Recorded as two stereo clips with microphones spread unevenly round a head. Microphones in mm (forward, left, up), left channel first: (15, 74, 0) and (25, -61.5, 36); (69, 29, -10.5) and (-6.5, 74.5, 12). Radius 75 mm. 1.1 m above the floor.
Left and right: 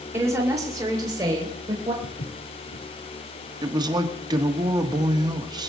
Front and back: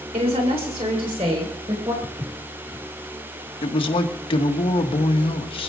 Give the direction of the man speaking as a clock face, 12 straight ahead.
1 o'clock.